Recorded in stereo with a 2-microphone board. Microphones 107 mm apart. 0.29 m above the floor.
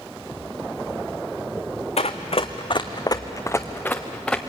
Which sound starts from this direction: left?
Running footsteps, at 2.0 s.